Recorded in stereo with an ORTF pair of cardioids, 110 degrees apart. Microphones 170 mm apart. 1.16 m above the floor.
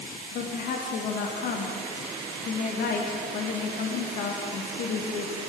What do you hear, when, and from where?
0.3 s a woman speaking: 60° left, 1.4 m